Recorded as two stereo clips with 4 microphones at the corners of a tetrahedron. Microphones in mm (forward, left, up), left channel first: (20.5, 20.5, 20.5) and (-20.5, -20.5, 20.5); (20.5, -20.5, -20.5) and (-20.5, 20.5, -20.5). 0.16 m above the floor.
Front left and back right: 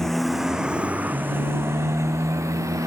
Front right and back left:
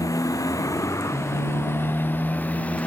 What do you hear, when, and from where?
0.0 s a motorcycle: 40° right; by 2.9 s 110° right